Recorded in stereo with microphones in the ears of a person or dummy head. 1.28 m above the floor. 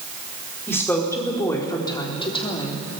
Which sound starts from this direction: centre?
A woman speaking, at 0.7 s.